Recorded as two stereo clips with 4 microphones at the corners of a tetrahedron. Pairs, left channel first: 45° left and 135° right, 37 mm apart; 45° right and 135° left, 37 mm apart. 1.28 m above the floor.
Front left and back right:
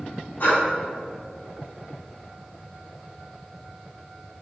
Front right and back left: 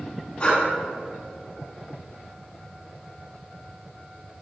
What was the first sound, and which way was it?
Breathing, 10° left.